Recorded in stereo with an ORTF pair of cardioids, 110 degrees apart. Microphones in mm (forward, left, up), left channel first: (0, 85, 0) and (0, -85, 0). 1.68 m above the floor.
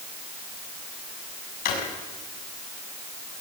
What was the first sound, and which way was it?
A drawer, 65° left.